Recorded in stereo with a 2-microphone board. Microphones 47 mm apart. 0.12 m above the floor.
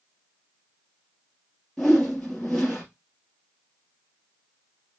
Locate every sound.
1.8 s a whoosh: 5° left (ahead or behind), 1.9 m